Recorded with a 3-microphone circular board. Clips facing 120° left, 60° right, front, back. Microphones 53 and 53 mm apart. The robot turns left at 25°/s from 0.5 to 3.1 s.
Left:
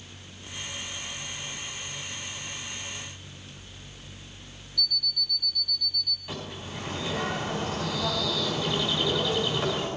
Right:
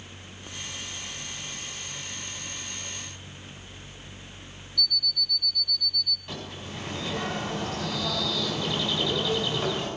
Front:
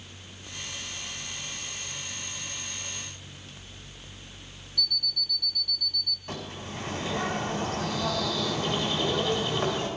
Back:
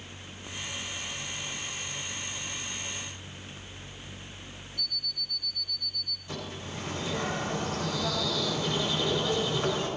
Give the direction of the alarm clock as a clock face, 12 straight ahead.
11 o'clock.